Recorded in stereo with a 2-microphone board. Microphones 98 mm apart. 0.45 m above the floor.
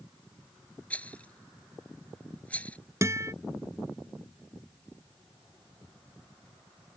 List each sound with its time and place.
0.9 s a rattle: 15° left (ahead or behind)
3.0 s a guitar: 30° right (ahead or behind)